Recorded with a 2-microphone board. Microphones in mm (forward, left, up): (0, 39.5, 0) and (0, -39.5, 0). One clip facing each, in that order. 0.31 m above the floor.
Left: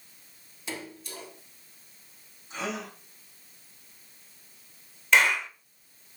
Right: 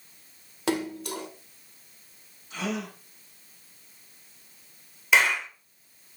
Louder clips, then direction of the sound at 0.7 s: Right 11 dB; 70° right (ahead or behind).